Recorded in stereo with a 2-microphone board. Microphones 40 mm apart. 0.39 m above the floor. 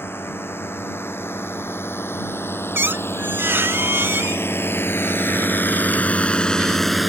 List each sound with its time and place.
0.0 s a drone: 80° left; by 7.1 s 5° right (ahead or behind)
2.8 s a squeak: 70° right (ahead or behind)